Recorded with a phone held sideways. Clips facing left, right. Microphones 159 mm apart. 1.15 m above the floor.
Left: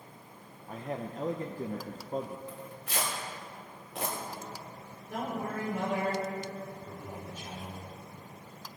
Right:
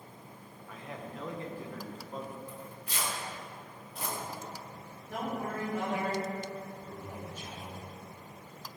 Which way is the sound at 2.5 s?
80° left.